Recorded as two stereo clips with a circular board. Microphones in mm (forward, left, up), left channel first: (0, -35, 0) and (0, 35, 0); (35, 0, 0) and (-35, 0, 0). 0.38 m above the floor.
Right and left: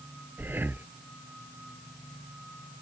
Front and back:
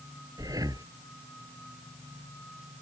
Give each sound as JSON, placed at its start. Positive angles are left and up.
{"t": 0.4, "sound": "breathing", "azimuth_deg": 150}